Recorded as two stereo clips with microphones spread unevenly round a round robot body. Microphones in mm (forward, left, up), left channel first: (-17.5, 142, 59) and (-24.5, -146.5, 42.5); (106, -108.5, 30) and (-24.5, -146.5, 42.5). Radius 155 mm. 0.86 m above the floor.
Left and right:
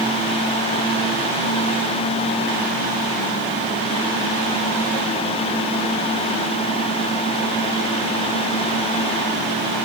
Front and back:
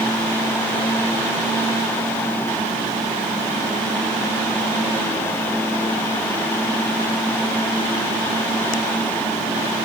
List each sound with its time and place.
Only background noise.